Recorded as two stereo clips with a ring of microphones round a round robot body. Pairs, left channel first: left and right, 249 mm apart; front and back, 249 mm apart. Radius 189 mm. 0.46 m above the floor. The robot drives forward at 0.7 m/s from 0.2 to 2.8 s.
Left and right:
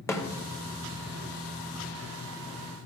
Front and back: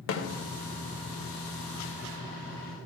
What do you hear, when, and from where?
0.1 s a snare drum: 10° left, 2 m